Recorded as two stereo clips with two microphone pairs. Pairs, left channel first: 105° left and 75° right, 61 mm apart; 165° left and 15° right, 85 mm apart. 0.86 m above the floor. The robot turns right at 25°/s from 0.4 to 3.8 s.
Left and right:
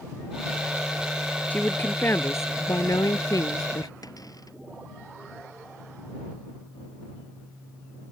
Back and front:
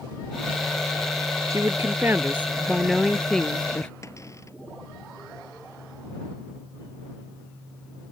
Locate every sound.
1.5 s a woman speaking: 40° left; by 3.9 s 95° left
4.0 s a cupboard door: 115° left